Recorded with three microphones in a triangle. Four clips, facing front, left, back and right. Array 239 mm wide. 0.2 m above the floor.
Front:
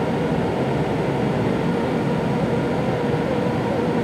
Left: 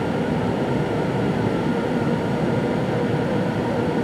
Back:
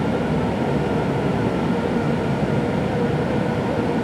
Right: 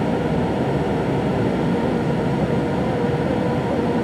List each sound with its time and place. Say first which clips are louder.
0.0 s running water: right 2 dB, even; 65° right, 3.5 m